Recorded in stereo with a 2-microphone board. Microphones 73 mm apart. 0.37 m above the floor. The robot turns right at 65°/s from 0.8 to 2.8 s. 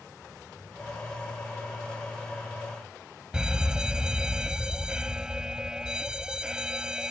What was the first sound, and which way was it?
A fire alarm, 10° right (ahead or behind).